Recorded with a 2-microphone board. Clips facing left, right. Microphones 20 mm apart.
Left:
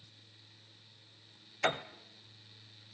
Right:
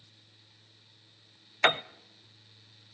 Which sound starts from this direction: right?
A piano, at 1.6 s.